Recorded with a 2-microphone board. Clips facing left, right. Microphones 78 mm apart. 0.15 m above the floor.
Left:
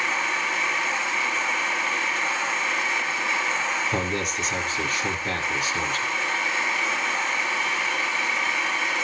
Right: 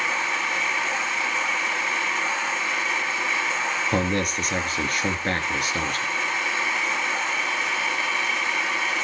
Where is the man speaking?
55° right (ahead or behind), 3 m.